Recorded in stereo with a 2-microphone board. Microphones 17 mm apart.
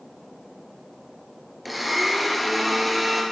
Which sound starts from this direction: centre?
A blender, at 1.6 s.